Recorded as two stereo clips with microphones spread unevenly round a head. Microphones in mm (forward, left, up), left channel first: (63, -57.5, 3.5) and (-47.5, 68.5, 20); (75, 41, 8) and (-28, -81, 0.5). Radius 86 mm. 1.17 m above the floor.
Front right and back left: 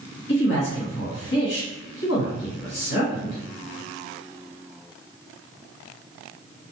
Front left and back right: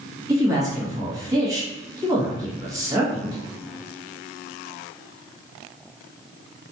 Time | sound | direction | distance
0.3 | a man speaking | 60° right | 1.3 m